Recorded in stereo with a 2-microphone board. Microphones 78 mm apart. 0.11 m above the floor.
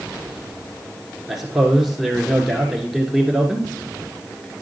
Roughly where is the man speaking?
Centre.